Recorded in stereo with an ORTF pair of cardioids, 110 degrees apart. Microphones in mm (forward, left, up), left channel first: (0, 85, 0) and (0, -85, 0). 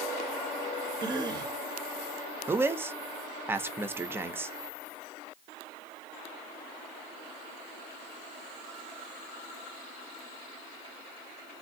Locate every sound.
1.0 s a cough: 25° right, 0.8 m
2.5 s a man speaking: 15° right, 0.6 m